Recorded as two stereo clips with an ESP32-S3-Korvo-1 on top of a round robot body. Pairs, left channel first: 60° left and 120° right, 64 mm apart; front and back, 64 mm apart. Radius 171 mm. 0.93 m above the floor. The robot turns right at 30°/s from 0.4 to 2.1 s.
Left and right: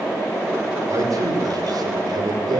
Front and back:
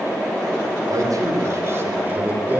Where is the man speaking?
155° right, 5 m; by 2.6 s 120° right, 5 m.